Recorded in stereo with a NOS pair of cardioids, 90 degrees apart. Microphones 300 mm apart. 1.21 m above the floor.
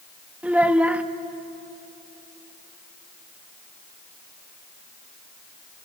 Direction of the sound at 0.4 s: 5° right.